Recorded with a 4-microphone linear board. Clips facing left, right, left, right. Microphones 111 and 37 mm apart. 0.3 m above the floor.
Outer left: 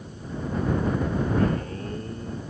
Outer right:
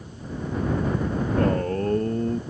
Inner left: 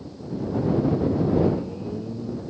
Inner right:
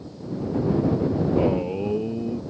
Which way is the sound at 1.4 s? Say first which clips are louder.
Outer right 4 dB, inner right 1 dB; 50° right (ahead or behind).